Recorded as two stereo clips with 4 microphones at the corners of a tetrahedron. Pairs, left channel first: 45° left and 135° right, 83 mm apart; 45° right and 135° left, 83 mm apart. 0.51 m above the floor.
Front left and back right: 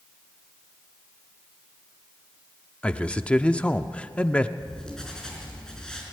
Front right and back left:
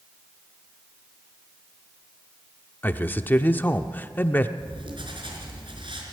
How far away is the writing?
About 4 m.